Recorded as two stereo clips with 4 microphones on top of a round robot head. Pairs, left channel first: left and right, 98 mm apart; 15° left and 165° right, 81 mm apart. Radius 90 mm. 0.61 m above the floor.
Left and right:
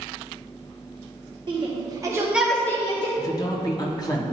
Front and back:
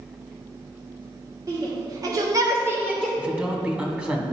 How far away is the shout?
About 1.5 m.